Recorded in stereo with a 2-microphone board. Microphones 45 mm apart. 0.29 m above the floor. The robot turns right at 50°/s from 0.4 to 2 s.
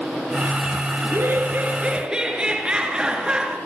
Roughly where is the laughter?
Right.